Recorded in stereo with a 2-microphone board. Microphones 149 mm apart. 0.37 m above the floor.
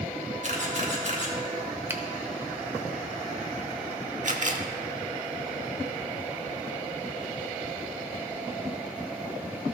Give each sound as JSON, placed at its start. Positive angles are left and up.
{"t": 0.4, "sound": "a camera shutter", "side_deg": -55, "distance_m": 2.5}
{"t": 1.9, "sound": "a finger snap", "side_deg": -15, "distance_m": 0.8}
{"t": 4.2, "sound": "a camera shutter", "side_deg": -55, "distance_m": 0.8}